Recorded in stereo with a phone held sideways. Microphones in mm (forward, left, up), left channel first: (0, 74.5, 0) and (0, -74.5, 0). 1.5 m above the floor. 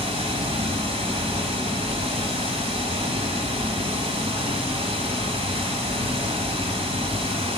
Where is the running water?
40° right (ahead or behind), 1.7 m.